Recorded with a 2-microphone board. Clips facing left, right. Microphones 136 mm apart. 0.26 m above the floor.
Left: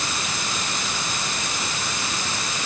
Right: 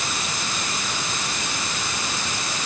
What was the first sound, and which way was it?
Only background noise.